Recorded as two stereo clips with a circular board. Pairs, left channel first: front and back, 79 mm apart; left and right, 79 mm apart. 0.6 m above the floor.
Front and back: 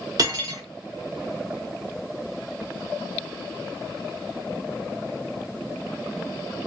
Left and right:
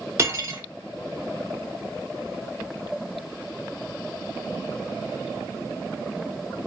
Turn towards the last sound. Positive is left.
turn(degrees=-145)